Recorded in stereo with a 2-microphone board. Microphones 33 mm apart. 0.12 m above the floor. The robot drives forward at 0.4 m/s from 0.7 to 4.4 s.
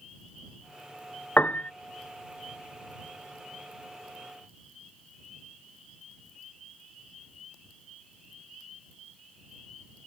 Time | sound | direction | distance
1.4 | a piano | 75° left (ahead or behind) | ?